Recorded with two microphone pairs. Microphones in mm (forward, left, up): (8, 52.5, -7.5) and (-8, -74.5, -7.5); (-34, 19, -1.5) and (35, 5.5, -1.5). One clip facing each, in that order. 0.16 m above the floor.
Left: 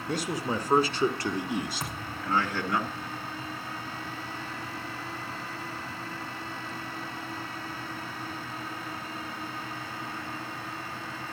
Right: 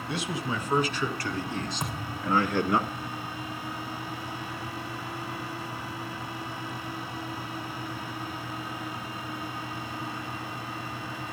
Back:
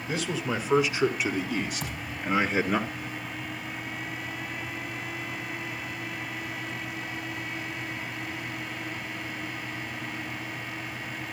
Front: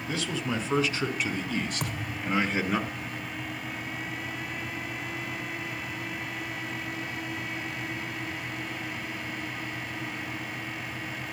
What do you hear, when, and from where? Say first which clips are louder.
0.1 s a man speaking: left 2 dB, back 1 dB; 95° left, 2.5 m; by 2.8 s 110° right, 1.8 m
1.8 s a thud: right 3 dB, front 1 dB; 20° right, 4 m